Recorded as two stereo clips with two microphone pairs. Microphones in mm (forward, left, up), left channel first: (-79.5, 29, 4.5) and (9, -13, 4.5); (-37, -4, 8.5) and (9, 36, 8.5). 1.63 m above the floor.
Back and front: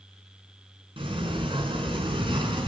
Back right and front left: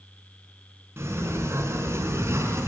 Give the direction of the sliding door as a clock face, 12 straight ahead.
12 o'clock.